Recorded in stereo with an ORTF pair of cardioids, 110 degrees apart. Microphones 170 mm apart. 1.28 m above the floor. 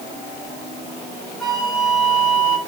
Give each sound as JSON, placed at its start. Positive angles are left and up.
{"t": 1.4, "sound": "a flute", "azimuth_deg": 0, "distance_m": 4.5}